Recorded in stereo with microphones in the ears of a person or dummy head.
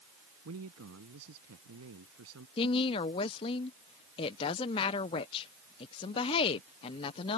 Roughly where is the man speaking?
Right.